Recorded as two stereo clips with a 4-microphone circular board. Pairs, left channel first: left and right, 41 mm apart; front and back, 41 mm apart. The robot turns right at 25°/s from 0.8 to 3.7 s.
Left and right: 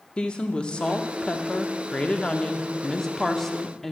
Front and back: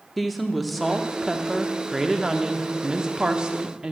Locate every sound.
0.2 s a woman speaking: 90° left, 0.7 m; by 3.9 s 165° left, 0.7 m